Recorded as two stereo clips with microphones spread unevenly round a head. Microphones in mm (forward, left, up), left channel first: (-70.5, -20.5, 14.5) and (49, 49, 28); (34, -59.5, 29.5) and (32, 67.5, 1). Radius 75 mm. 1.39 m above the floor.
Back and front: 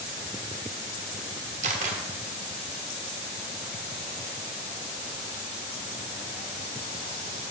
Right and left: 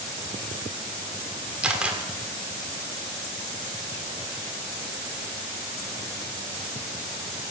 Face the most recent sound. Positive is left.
turn(degrees=0)